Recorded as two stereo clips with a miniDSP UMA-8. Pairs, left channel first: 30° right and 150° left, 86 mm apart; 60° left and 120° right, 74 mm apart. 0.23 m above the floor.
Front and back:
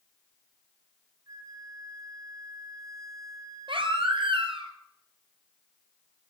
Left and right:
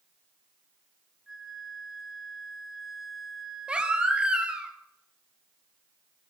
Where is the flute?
155° left, 1.8 m.